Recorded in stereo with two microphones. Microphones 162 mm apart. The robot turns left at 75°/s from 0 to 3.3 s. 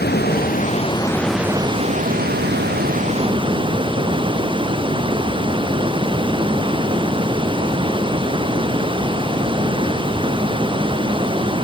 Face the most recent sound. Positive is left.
turn(degrees=-150)